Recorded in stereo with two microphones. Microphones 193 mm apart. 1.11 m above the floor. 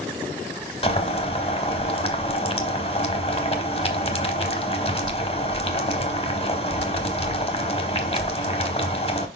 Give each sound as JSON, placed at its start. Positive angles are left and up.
{"t": 0.8, "sound": "boiling", "side_deg": 30, "distance_m": 1.0}